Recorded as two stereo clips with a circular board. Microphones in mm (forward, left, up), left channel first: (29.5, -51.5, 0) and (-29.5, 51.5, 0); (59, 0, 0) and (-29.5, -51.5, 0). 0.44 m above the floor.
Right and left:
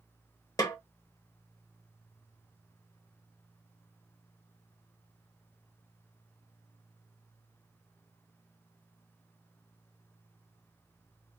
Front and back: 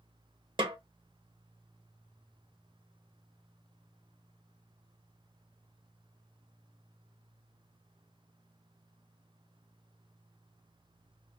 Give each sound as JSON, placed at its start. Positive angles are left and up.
{"t": 0.6, "sound": "a snare drum", "azimuth_deg": -115, "distance_m": 0.7}